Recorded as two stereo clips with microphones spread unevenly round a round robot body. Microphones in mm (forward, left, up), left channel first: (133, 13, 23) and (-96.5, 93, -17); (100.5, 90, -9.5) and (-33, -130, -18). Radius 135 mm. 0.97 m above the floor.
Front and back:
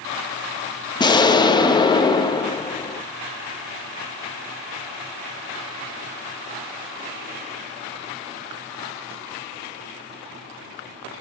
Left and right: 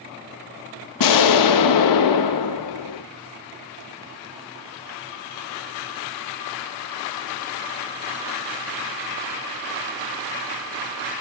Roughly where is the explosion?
Ahead left.